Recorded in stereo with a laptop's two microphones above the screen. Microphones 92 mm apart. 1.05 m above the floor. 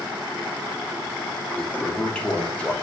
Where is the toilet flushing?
15° left (ahead or behind), 0.8 m.